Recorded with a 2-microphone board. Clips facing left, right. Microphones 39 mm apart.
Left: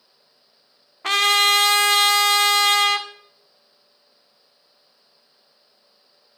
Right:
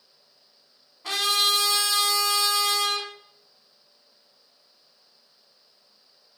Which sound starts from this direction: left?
A trumpet, at 1.0 s.